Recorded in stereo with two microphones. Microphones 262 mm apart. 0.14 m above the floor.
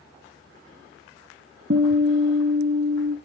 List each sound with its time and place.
1.7 s a guitar: 50° right (ahead or behind), 0.6 m